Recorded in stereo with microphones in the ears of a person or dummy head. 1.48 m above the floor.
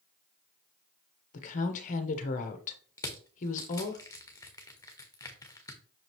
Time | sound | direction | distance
1.3 | a woman speaking | 40° left (ahead or behind) | 1.1 m
3.0 | crushing | 15° left (ahead or behind) | 1.2 m